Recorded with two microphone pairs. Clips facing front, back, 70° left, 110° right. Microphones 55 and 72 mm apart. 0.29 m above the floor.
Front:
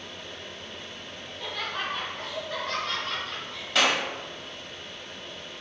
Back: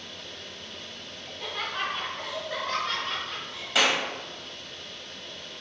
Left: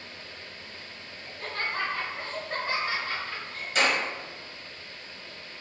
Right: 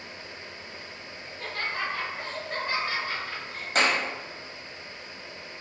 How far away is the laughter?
About 1.5 m.